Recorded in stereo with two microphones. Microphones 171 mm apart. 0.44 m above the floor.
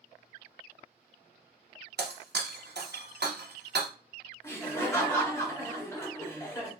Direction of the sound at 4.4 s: 15° left (ahead or behind).